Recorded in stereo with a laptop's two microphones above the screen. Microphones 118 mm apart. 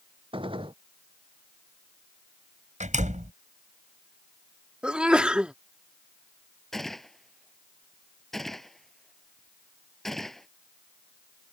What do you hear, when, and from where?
0.3 s a gunshot: 45° right (ahead or behind)
2.8 s a door slam: 85° right
4.8 s a sneeze: 10° right (ahead or behind)
6.7 s a gunshot: centre (ahead or behind)